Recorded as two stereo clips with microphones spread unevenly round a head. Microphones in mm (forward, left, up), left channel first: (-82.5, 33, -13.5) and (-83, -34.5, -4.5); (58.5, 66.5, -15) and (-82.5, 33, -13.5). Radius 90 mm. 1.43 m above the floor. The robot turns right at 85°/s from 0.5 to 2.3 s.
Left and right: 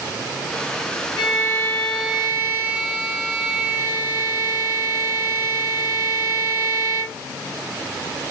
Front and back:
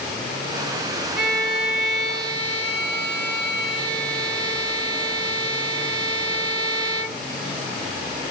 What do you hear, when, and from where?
1.2 s a violin: 110° left, 1.5 m; by 7.2 s 155° right, 1.5 m